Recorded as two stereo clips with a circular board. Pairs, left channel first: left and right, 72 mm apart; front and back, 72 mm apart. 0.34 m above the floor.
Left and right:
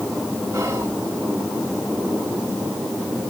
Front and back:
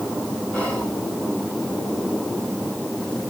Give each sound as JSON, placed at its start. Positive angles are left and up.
{"t": 0.5, "sound": "whispering", "azimuth_deg": -70, "distance_m": 2.0}